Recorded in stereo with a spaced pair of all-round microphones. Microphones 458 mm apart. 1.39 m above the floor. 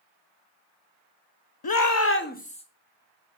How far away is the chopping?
No chopping in this recording.